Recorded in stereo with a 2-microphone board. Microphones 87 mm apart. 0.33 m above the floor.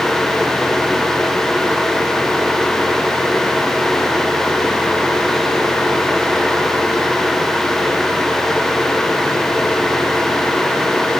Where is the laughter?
No laughter in this recording.